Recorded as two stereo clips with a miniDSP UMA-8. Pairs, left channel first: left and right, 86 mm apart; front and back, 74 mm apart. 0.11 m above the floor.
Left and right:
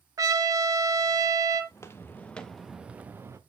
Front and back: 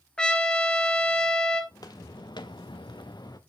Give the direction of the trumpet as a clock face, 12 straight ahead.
2 o'clock.